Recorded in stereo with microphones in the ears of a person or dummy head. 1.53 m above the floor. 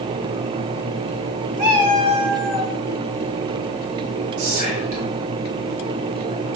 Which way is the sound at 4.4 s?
90° right.